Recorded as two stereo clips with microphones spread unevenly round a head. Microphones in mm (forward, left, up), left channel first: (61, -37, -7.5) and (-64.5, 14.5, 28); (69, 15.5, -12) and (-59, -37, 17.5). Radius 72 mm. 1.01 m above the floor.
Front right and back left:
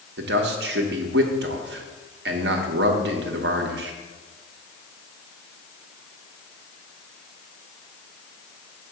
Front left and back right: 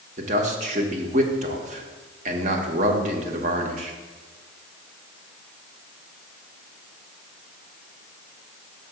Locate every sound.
0.2 s a man speaking: 155° left, 1.0 m